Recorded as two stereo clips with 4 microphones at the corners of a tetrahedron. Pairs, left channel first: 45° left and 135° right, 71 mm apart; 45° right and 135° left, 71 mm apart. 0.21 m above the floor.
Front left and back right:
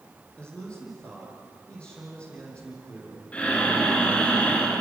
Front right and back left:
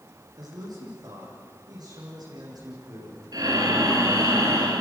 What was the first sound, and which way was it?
A man speaking, 120° left.